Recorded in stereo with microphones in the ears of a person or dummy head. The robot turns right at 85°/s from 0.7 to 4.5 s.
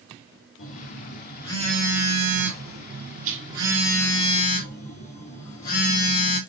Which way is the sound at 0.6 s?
90° left.